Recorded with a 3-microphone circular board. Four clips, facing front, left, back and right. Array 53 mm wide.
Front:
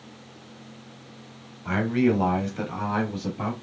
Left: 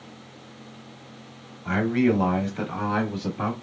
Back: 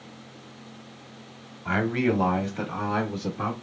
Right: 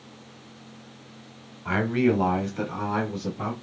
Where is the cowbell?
I don't hear a cowbell.